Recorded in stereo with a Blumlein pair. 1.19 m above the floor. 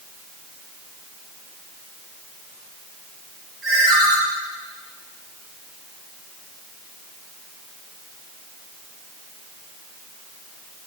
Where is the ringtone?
25° right, 2.5 m.